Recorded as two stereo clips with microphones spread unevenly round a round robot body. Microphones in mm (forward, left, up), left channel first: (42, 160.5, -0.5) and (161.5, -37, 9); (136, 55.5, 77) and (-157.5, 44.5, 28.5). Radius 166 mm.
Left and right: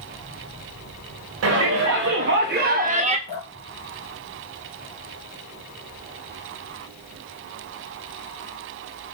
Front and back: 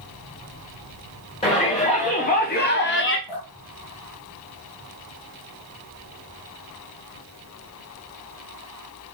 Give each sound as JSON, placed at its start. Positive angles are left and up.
{"t": 1.4, "sound": "a shout", "azimuth_deg": -75, "distance_m": 1.5}
{"t": 3.3, "sound": "dripping", "azimuth_deg": -10, "distance_m": 3.5}